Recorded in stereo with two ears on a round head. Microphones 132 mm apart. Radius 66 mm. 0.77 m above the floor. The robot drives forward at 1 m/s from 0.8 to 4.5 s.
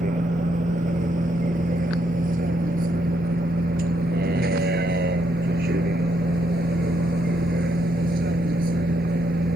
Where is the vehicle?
50° right (ahead or behind); by 9.6 s 65° right (ahead or behind).